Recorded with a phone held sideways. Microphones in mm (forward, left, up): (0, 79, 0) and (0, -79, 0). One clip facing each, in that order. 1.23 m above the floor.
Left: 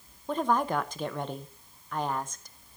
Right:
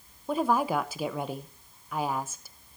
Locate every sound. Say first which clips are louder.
0.3 s a woman speaking: right 1 dB; 5° right (ahead or behind), 0.9 m